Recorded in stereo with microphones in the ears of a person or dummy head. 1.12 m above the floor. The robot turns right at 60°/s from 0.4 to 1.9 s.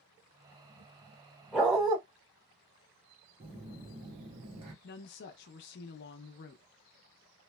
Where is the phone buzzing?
30° right (ahead or behind), 0.7 m.